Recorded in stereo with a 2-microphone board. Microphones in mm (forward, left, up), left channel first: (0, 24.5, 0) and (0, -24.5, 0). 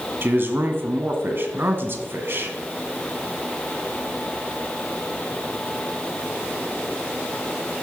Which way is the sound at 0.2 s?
50° right (ahead or behind).